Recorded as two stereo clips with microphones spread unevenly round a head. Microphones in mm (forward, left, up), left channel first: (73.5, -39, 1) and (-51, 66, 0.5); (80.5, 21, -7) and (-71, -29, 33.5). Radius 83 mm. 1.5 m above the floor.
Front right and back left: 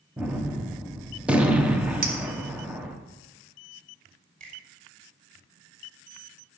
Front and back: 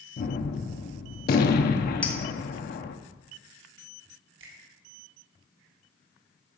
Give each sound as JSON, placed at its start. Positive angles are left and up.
{"t": 0.2, "sound": "a gunshot", "azimuth_deg": 55, "distance_m": 0.9}
{"t": 2.0, "sound": "a clink", "azimuth_deg": 110, "distance_m": 1.5}
{"t": 4.4, "sound": "a finger snap", "azimuth_deg": -170, "distance_m": 3.0}